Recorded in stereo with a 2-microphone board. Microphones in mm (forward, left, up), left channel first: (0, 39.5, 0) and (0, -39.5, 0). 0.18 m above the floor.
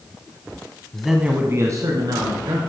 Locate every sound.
0.9 s a man speaking: 10° left (ahead or behind), 1.1 m; by 2.6 s 65° right (ahead or behind), 2.5 m